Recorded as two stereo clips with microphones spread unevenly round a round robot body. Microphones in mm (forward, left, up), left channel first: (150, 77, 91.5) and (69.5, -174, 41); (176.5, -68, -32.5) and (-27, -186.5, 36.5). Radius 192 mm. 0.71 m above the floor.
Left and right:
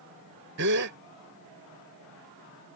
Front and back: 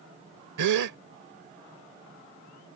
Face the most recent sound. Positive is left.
turn(degrees=-160)